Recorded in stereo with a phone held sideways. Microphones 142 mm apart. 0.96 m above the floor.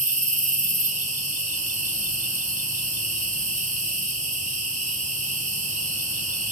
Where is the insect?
60° right (ahead or behind), 0.7 m.